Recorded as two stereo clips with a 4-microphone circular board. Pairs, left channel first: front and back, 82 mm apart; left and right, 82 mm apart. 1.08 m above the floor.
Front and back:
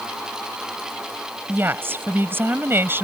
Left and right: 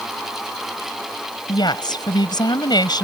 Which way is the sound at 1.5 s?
120° left.